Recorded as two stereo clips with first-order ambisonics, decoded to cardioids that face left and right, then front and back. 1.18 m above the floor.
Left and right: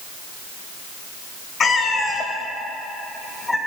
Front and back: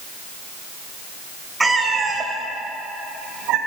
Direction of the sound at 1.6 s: 100° left.